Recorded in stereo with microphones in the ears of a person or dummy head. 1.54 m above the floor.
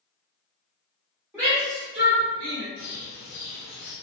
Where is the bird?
50° left (ahead or behind), 0.6 m.